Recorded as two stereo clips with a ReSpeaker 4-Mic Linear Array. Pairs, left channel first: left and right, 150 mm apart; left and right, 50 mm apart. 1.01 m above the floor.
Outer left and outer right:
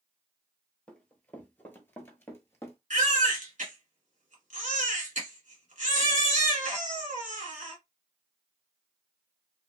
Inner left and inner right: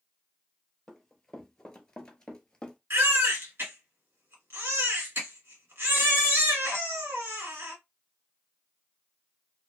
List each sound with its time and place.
0.9 s running footsteps: 10° left (ahead or behind), 1.1 m; by 2.8 s 15° left (ahead or behind), 1.1 m
2.9 s a baby crying: 55° right (ahead or behind), 1.5 m